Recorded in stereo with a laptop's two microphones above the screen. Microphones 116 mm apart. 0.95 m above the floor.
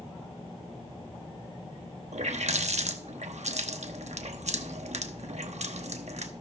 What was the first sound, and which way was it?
A running tap, 75° right (ahead or behind).